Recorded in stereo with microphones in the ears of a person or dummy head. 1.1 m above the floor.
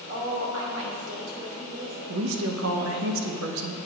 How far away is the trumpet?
I don't hear a trumpet.